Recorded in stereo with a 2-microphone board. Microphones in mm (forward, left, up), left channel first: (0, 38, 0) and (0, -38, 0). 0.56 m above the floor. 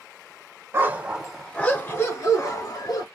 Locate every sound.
0.7 s a dog barking: 30° right (ahead or behind), 0.8 m; by 3.0 s 55° left (ahead or behind), 1.7 m